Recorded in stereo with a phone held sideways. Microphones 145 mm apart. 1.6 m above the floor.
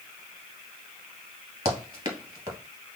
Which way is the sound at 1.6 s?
25° right (ahead or behind).